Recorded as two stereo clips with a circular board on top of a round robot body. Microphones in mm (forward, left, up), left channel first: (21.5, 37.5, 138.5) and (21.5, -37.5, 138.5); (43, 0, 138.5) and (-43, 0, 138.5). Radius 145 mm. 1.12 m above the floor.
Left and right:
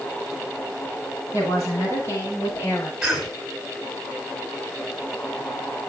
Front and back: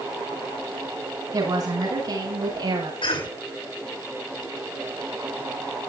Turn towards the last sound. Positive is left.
turn(degrees=0)